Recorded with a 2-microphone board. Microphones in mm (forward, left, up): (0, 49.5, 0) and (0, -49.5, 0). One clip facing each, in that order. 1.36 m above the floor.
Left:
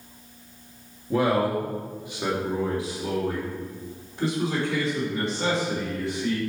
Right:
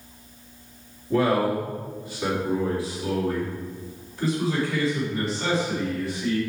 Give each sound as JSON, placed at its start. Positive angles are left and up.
{"t": 1.1, "sound": "a man speaking", "side_deg": 15, "distance_m": 1.9}